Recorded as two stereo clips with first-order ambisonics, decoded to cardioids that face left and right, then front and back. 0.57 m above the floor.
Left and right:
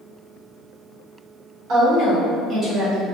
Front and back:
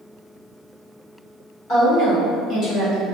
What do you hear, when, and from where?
1.7 s a woman speaking: 50° right, 1.3 m; by 3.0 s 30° left, 0.7 m